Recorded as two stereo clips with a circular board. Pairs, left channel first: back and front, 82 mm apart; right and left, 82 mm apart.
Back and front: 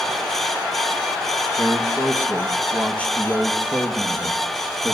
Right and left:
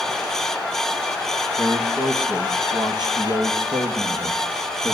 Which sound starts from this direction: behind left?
A man speaking, at 1.6 s.